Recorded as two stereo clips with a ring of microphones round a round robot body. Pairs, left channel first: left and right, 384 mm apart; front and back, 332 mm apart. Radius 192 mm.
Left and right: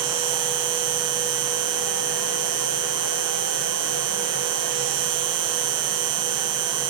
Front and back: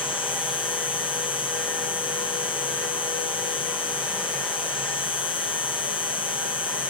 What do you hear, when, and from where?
0.0 s an insect: 75° right